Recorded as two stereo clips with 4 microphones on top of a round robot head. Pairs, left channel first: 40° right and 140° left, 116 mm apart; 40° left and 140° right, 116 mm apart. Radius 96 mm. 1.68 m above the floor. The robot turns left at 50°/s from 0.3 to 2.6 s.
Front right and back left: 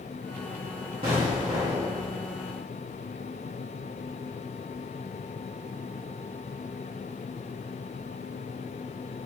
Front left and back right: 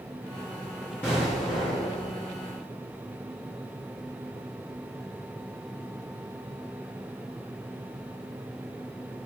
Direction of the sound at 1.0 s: 110° left.